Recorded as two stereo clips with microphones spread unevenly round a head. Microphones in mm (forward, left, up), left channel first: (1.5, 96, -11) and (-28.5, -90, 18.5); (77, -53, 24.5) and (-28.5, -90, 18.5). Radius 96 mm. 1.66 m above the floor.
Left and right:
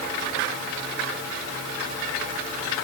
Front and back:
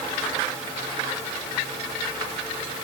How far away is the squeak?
I don't hear a squeak.